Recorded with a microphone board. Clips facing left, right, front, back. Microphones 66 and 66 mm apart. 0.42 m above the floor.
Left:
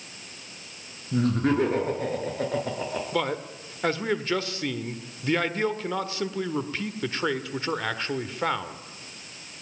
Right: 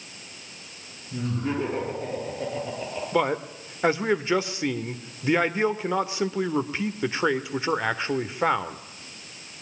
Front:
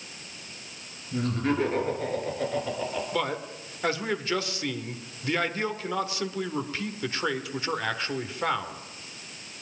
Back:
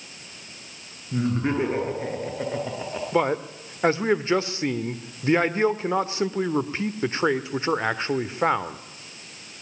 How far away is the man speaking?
About 1.3 m.